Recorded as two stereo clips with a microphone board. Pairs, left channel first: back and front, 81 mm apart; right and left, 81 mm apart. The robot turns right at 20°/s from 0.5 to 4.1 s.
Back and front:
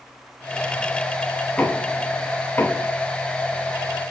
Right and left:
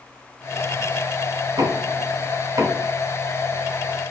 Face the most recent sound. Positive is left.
turn(degrees=155)